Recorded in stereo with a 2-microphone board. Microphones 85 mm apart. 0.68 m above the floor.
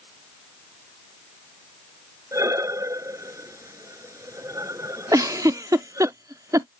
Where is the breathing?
40° right (ahead or behind).